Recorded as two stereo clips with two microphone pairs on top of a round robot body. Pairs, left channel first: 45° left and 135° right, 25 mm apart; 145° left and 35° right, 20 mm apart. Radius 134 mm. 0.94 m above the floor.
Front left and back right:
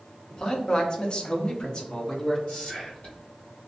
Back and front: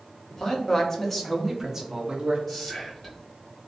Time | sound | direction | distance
0.3 | a man speaking | 100° left | 1.1 m
2.5 | whispering | 80° left | 1.6 m